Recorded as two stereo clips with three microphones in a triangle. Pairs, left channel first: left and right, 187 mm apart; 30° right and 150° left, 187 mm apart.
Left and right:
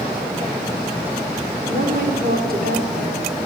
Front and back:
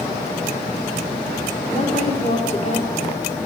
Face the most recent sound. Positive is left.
turn(degrees=-75)